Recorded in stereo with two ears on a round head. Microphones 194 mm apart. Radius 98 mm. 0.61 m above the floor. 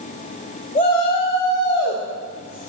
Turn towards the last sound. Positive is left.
turn(degrees=65)  # may be behind; listen again after turning